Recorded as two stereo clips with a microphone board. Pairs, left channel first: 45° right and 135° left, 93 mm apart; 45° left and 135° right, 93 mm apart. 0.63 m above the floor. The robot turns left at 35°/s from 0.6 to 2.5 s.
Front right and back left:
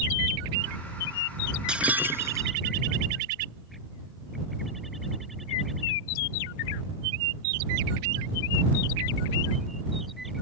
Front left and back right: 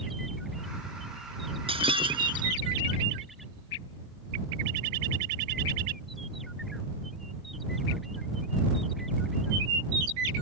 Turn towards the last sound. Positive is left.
turn(degrees=-170)